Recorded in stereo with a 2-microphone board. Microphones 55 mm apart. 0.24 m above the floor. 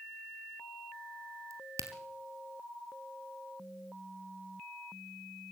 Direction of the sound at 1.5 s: 75° right (ahead or behind).